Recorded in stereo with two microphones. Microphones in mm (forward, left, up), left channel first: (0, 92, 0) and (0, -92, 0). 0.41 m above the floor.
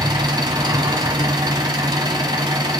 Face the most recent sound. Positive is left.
turn(degrees=-25)  # may be behind; listen again after turning